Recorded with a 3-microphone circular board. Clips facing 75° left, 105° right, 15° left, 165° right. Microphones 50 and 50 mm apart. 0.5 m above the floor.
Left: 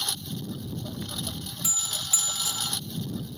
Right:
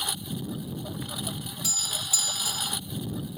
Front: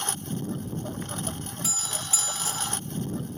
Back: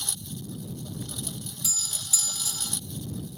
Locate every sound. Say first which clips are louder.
0.0 s a lawn mower: right 1 dB, front 7 dB; 30° right
1.6 s a doorbell: even, front 4 dB; 25° left